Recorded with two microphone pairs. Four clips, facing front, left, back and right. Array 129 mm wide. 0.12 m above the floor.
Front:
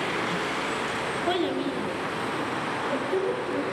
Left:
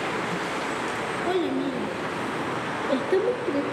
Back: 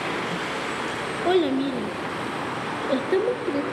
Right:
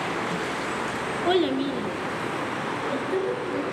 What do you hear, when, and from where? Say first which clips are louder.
1.2 s a child speaking: right 3 dB, back 7 dB; 130° right, 0.7 m; by 3.6 s 145° left, 1.4 m